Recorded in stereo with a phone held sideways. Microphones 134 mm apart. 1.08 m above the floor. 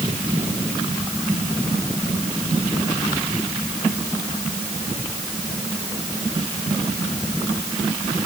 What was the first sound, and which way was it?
Only background noise.